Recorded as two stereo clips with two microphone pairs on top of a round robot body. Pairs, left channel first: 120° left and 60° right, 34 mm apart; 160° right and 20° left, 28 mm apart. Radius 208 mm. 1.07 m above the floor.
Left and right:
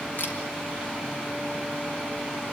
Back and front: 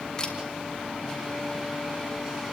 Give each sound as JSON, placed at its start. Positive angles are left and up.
{"t": 0.2, "sound": "a camera shutter", "azimuth_deg": 135, "distance_m": 3.5}